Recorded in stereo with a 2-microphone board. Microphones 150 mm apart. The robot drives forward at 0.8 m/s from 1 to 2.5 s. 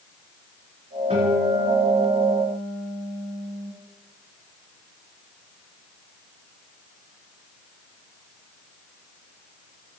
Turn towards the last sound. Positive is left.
turn(degrees=-60)  # may be behind; listen again after turning